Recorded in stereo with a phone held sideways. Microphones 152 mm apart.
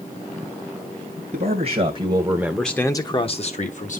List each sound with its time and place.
1.3 s a man speaking: 55° right (ahead or behind), 1.2 m; by 4.0 s 60° left (ahead or behind), 1.3 m